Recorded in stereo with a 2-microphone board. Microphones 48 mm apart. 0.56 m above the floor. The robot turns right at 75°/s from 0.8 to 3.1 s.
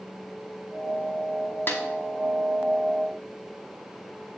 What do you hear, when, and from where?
1.7 s a snare drum: 50° left (ahead or behind), 1.7 m; by 1.8 s 65° left (ahead or behind), 1.7 m